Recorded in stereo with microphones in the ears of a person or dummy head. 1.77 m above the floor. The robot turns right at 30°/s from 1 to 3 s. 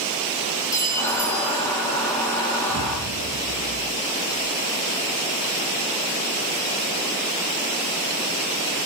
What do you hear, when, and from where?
0.7 s a clink: 15° left (ahead or behind), 2.5 m; by 1.7 s 5° right (ahead or behind), 2.5 m
2.7 s an explosion: 65° right (ahead or behind), 1.6 m